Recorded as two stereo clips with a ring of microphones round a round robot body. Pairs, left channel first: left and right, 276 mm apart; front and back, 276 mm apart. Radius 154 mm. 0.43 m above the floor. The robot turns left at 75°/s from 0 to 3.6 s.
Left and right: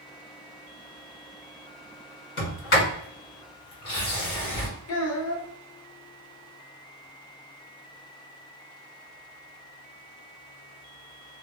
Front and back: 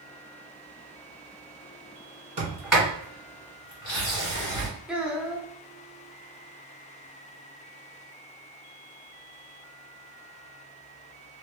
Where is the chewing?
No chewing in this recording.